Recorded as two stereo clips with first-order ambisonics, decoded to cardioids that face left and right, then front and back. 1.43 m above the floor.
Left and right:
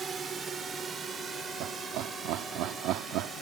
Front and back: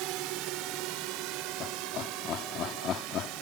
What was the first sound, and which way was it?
A drone, 160° right.